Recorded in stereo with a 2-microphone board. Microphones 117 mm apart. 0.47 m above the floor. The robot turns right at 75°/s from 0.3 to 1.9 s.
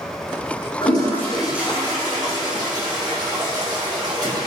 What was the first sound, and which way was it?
A toilet flushing, 135° left.